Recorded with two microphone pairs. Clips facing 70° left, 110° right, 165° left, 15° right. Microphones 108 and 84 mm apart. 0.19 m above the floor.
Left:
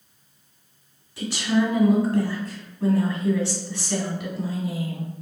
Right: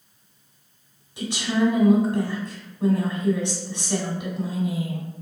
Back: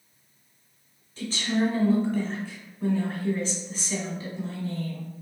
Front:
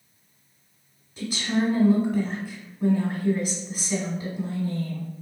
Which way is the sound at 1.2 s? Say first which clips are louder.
Left 1 dB, front 1 dB; 75° right.